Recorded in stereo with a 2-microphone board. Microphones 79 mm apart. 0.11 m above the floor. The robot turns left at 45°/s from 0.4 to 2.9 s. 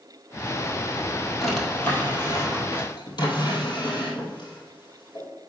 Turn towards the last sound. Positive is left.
turn(degrees=60)  # may be behind; listen again after turning